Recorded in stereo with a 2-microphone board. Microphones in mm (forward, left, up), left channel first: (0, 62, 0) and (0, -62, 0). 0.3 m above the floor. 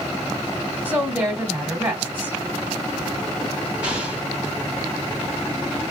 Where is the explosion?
10° right (ahead or behind), 1.9 m.